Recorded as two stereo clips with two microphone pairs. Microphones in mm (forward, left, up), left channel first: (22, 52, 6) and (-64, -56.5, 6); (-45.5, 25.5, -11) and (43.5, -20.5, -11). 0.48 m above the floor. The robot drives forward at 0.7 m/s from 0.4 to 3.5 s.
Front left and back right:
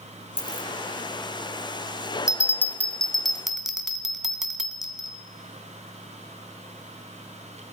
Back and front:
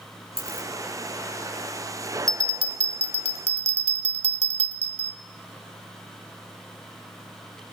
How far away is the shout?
I don't hear a shout.